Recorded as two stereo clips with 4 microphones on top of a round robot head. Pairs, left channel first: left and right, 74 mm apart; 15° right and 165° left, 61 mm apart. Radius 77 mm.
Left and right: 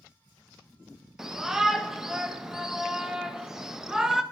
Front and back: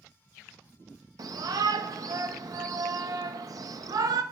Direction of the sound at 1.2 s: 175° right.